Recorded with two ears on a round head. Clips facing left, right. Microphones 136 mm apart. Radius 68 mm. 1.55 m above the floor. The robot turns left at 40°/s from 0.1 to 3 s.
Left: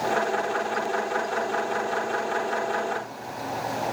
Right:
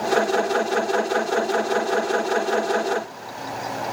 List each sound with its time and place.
Only background noise.